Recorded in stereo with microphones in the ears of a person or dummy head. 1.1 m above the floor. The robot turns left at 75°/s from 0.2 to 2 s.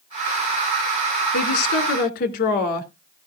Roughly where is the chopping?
I don't hear chopping.